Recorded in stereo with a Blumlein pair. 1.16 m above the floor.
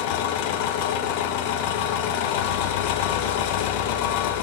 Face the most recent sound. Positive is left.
turn(degrees=45)